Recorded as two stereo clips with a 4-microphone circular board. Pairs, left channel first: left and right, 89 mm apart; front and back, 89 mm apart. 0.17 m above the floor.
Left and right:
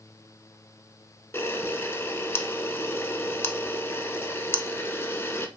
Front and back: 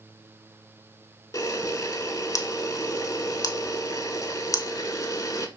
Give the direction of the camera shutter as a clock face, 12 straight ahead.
11 o'clock.